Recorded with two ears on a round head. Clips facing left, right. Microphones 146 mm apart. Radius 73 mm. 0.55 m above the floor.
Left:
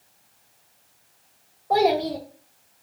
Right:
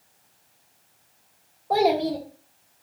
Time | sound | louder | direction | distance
1.7 | a child speaking | left 1 dB | centre (ahead or behind) | 0.6 m